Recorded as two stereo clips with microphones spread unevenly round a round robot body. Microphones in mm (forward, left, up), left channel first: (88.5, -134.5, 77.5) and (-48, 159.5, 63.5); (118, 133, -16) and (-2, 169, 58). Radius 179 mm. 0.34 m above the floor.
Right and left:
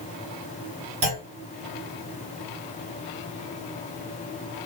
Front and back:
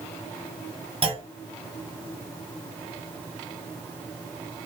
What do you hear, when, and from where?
1.0 s a clunk: 95° left, 2.0 m